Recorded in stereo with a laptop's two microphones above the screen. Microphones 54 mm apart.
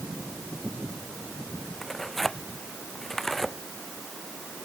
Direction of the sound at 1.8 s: 5° left (ahead or behind).